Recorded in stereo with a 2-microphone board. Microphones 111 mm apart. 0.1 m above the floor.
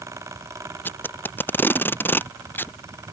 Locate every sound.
0.8 s tape being pulled: 20° left (ahead or behind)